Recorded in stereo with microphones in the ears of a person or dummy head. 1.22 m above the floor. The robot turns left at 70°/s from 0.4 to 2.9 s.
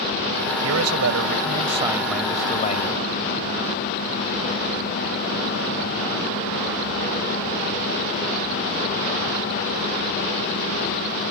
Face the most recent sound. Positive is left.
turn(degrees=130)